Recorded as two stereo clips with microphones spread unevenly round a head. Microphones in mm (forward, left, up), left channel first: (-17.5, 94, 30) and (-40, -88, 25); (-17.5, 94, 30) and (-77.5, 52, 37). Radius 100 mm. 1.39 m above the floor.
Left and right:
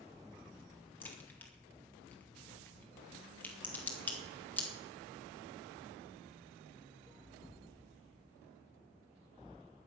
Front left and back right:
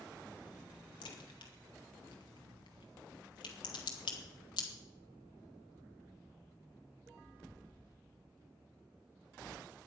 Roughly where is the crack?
Ahead.